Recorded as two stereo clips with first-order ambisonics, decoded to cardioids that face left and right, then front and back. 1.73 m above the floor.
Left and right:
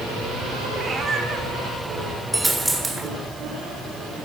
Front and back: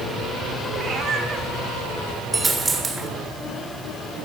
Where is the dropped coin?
160° right, 1.4 m.